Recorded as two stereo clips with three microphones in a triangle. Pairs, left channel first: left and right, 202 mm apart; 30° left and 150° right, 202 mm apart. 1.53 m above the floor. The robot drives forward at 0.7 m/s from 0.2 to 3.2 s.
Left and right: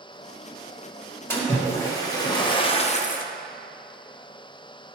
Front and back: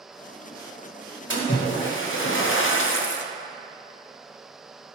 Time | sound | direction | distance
1.3 | a splash | 15° left | 1.7 m